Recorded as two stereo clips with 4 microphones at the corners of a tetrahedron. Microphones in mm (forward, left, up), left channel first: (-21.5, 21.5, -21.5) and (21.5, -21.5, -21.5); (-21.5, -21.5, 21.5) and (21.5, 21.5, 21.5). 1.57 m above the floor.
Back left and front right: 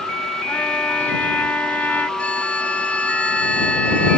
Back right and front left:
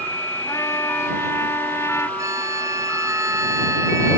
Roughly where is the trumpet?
Behind.